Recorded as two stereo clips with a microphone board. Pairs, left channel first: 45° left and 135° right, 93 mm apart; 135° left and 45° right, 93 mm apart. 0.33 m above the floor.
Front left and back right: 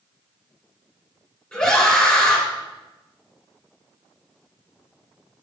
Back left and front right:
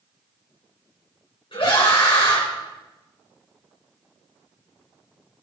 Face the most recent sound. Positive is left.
turn(degrees=120)